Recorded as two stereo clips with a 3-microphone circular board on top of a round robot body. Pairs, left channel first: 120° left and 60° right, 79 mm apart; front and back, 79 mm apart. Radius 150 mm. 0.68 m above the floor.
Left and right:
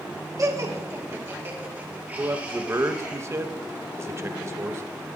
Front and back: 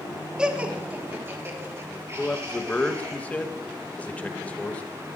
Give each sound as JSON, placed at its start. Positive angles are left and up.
{"t": 0.4, "sound": "laughter", "azimuth_deg": -100, "distance_m": 1.6}
{"t": 2.2, "sound": "a man speaking", "azimuth_deg": -60, "distance_m": 1.1}